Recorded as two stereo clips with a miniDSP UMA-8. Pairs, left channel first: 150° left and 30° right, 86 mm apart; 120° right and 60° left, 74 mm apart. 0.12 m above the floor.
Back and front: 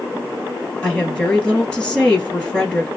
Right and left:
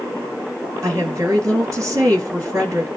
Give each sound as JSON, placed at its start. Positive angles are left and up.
{"t": 0.8, "sound": "a woman speaking", "azimuth_deg": 70, "distance_m": 1.9}